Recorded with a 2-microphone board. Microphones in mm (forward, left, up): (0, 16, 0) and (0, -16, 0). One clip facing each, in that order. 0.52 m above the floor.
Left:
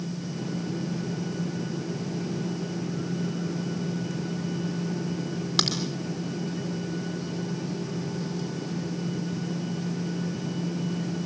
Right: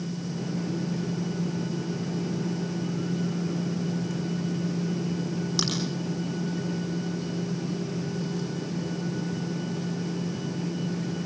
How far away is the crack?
About 4 m.